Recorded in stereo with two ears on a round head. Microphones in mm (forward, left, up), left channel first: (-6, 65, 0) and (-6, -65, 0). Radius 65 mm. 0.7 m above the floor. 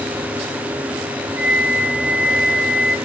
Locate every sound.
1.4 s a flute: 55° left (ahead or behind), 3 m